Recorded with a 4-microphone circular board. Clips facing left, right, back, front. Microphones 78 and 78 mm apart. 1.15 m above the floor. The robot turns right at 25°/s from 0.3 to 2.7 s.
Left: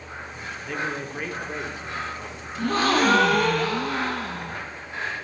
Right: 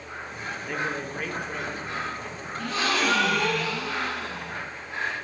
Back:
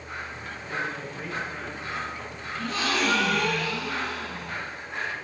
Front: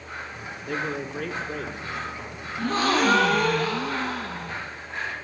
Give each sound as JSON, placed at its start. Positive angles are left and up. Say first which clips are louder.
{"t": 0.7, "sound": "a man speaking", "louder": "left 1 dB, front 3 dB", "azimuth_deg": -10, "distance_m": 3.0}
{"t": 2.6, "sound": "a gasp", "louder": "left 6 dB, front 5 dB", "azimuth_deg": 45, "distance_m": 1.5}